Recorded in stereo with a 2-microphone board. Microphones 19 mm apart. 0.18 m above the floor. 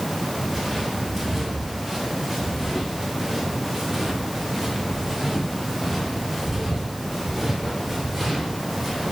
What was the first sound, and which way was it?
Footsteps, 5° right (ahead or behind).